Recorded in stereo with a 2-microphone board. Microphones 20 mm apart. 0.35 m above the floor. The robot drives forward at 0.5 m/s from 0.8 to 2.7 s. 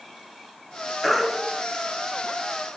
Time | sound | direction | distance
1.0 | a baby crying | 5° left (ahead or behind) | 4.5 m